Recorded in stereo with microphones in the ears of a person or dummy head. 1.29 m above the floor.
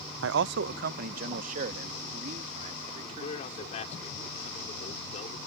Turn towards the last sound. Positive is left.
turn(degrees=35)  # may be behind; listen again after turning